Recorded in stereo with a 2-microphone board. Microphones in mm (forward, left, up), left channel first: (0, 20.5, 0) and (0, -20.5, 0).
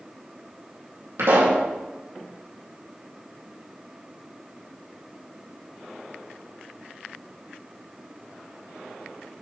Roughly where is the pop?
Right.